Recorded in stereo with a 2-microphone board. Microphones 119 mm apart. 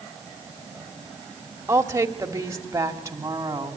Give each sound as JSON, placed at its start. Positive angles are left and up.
{"t": 1.7, "sound": "a woman speaking", "side_deg": -20, "distance_m": 1.4}